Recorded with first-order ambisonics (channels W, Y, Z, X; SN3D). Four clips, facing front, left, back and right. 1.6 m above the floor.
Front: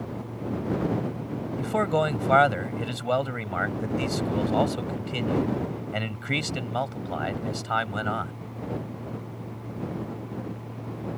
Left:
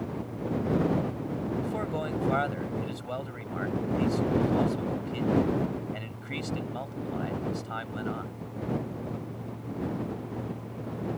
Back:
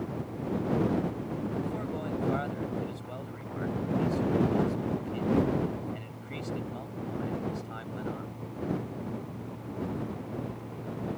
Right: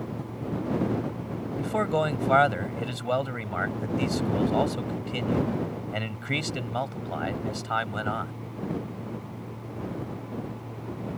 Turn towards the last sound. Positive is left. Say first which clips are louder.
# right 6 dB, front 10 dB
turn(degrees=-30)